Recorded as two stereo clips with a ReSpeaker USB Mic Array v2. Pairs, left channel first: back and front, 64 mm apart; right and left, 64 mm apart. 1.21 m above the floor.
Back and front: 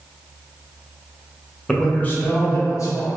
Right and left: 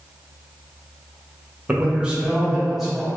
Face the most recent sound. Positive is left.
turn(degrees=175)